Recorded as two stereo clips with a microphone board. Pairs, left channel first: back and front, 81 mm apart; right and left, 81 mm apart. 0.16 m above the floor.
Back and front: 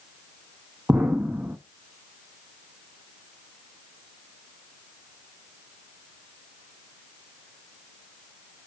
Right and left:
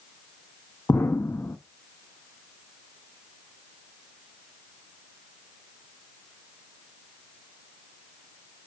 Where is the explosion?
50° right, 0.6 m.